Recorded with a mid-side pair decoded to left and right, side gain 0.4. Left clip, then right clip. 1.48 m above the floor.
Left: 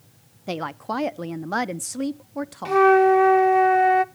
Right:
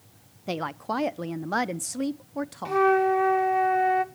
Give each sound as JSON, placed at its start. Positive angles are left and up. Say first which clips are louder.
{"t": 0.5, "sound": "a woman speaking", "louder": "left 1 dB", "azimuth_deg": 10, "distance_m": 0.5}
{"t": 2.6, "sound": "a flute", "louder": "left 6 dB", "azimuth_deg": 45, "distance_m": 0.7}